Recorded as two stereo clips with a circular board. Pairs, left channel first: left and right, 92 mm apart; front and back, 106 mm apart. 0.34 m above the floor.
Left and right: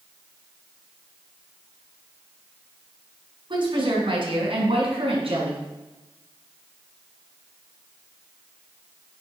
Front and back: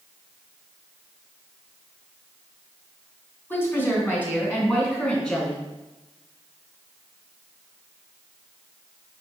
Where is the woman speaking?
70° right, 2.5 m; by 5.6 s 80° right, 3.5 m.